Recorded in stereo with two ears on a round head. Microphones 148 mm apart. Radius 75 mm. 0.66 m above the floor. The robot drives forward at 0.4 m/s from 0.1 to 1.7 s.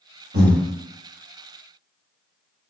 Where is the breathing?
65° right (ahead or behind), 1.1 m.